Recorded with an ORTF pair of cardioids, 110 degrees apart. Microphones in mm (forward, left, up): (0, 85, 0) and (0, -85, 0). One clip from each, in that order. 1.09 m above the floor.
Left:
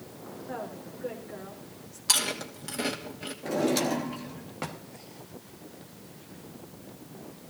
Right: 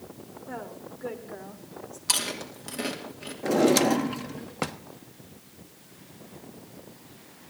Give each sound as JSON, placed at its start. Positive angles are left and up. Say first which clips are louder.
{"t": 0.5, "sound": "a woman speaking", "louder": "even", "azimuth_deg": -30, "distance_m": 4.0}
{"t": 2.1, "sound": "chewing", "louder": "left 1 dB", "azimuth_deg": 0, "distance_m": 3.0}
{"t": 3.4, "sound": "a drawer", "louder": "right 6 dB", "azimuth_deg": -40, "distance_m": 1.1}